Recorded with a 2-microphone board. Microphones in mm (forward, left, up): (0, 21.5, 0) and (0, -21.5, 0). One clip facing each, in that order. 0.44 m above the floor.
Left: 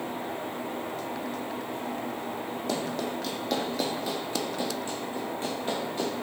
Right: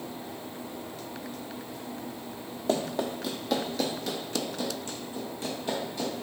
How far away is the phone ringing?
No phone ringing in this recording.